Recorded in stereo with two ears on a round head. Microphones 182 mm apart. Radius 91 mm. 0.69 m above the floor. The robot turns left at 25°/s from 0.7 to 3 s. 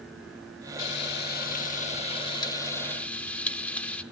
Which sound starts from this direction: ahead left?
Frying, at 0.8 s.